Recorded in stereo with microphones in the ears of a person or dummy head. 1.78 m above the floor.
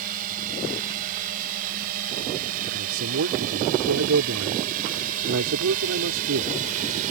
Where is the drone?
45° right (ahead or behind).